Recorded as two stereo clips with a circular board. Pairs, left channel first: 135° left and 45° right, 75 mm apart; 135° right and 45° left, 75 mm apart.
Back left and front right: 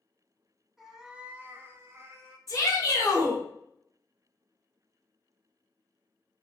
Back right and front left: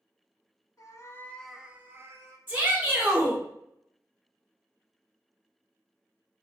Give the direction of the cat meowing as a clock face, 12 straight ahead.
4 o'clock.